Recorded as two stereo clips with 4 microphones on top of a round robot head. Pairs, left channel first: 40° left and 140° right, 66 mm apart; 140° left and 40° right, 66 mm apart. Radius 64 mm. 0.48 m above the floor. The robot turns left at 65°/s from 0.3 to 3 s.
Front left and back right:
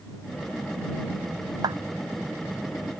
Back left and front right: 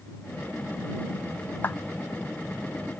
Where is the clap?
160° right; by 1.8 s 170° right.